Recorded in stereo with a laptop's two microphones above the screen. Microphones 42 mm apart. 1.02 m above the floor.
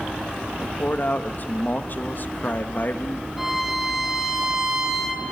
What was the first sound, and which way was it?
A man speaking, 50° left (ahead or behind).